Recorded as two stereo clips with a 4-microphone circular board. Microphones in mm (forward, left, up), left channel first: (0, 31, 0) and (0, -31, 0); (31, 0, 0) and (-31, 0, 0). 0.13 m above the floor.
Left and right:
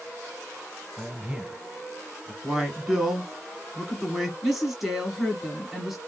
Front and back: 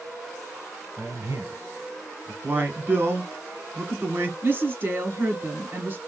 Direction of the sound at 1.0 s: 165° right.